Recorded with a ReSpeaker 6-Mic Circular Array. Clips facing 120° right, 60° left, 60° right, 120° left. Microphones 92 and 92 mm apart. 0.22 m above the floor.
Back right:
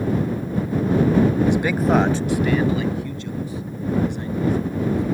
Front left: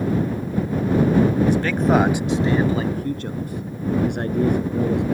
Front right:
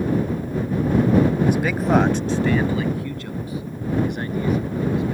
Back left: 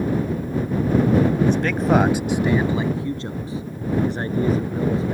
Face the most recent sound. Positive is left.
turn(degrees=65)